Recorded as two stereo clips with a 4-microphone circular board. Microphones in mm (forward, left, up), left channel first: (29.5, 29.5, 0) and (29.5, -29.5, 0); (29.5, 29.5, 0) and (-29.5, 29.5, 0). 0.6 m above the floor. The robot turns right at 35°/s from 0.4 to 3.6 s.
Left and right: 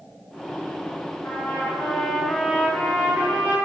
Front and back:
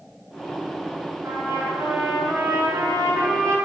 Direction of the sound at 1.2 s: 135° left.